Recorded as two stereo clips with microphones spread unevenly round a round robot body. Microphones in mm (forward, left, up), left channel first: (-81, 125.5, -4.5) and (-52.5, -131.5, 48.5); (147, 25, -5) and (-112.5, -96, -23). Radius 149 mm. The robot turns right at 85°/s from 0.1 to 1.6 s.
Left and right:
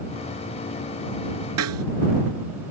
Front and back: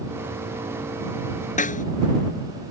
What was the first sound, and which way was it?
A snare drum, 40° right.